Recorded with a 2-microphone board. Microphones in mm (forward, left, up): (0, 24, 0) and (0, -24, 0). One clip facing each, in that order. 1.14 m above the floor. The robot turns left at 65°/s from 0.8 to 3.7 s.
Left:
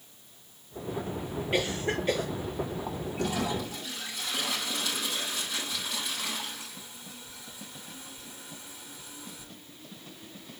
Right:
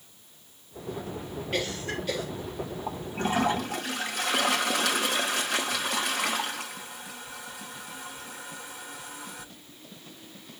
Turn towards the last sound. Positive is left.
turn(degrees=-65)